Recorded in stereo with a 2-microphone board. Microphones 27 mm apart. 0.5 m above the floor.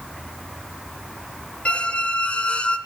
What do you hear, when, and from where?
1.6 s a squeak: 45° left (ahead or behind), 0.7 m